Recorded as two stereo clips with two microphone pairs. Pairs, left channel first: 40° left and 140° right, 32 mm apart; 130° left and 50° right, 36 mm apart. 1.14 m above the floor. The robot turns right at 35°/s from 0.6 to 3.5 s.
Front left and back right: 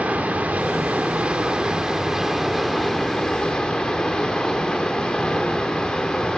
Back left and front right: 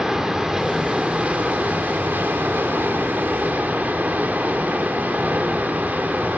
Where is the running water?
120° right, 2 m; by 6.4 s 20° right, 2 m.